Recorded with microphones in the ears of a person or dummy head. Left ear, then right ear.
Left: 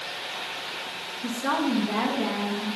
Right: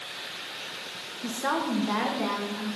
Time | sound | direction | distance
1.2 | a woman speaking | 30° right (ahead or behind) | 0.6 m